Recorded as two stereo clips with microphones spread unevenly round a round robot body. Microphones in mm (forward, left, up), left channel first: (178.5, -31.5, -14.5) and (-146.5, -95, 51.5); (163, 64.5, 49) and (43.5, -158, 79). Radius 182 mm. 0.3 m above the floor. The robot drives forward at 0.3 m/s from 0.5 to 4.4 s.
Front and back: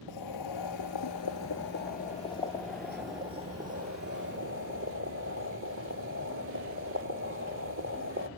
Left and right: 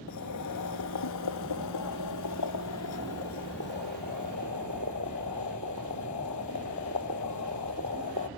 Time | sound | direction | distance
0.1 | boiling | 50° left | 0.9 m